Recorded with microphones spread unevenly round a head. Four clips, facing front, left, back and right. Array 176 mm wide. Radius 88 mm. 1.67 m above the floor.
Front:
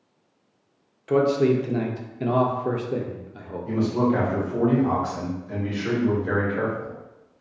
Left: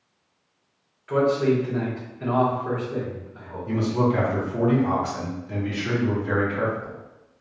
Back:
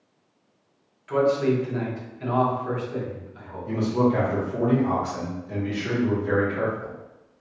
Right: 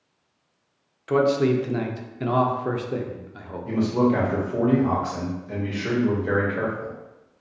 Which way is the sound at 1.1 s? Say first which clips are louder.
Right 1 dB, front 2 dB; 30° right.